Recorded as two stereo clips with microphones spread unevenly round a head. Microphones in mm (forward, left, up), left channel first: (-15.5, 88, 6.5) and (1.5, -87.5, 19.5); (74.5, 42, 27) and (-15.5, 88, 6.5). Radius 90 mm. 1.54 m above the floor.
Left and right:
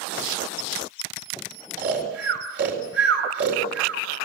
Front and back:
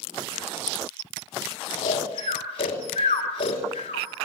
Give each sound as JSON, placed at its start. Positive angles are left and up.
{"t": 1.8, "sound": "snoring", "azimuth_deg": -50, "distance_m": 4.0}